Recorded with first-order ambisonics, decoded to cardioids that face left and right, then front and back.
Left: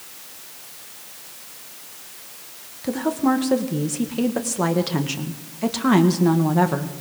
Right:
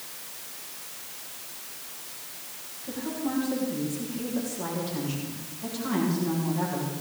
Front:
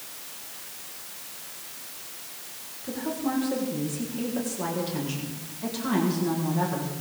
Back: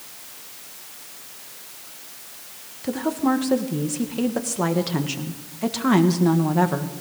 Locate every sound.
2.8 s a woman speaking: 125° left, 1.4 m